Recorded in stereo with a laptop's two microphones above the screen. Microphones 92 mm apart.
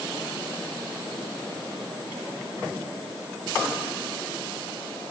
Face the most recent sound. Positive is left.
No sound to turn to.